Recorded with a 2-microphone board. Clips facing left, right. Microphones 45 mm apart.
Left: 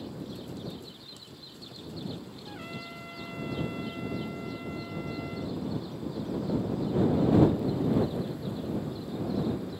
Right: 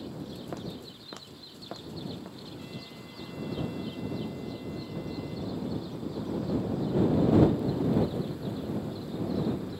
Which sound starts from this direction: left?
A trumpet, at 2.5 s.